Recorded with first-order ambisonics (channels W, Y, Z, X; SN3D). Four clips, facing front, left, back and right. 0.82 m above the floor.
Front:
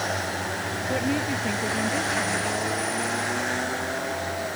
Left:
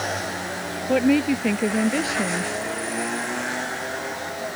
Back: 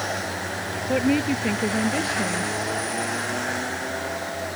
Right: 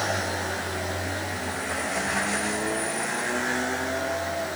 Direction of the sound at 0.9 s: 110° left.